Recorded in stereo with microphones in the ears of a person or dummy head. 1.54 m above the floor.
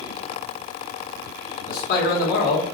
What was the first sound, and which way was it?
A man speaking, 50° left (ahead or behind).